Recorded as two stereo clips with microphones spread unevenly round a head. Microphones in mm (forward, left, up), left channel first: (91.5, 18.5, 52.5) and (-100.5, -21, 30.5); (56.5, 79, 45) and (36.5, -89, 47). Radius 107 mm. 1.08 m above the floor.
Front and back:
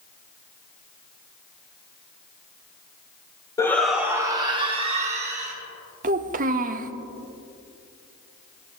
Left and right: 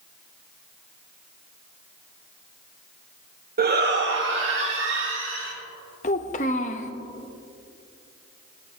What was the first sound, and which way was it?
A shout, 65° right.